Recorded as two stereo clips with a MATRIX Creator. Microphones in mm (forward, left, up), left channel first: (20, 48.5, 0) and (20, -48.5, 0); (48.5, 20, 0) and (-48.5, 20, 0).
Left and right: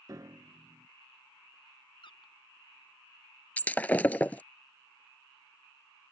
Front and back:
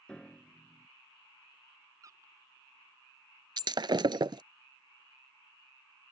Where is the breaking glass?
160° left.